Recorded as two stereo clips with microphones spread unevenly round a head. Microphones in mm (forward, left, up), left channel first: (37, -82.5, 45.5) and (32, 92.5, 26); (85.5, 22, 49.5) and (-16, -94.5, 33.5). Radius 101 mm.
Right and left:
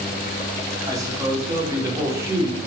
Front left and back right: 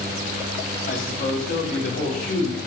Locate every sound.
0.9 s a man speaking: 20° left, 5 m; by 2.6 s 15° left, 6 m